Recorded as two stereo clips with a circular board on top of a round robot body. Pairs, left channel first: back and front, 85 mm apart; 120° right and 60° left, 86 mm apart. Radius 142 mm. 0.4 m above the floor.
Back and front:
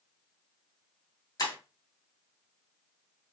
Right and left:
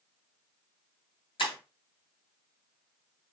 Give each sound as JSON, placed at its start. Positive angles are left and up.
{"t": 1.4, "sound": "breaking glass", "azimuth_deg": -135, "distance_m": 2.0}